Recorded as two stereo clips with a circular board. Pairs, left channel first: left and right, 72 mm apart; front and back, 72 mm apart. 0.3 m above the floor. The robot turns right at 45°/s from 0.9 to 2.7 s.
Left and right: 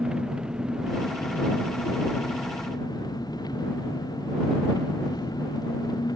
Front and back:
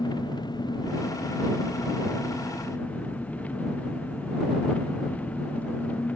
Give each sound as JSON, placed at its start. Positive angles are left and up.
{"t": 0.0, "sound": "an engine running", "azimuth_deg": -15}